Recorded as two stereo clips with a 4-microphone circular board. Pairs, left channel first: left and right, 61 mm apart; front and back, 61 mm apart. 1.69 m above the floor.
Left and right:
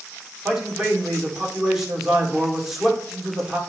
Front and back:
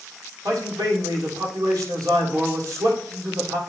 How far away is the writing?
No writing in this recording.